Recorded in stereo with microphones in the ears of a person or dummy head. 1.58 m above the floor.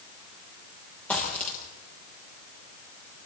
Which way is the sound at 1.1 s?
10° left (ahead or behind).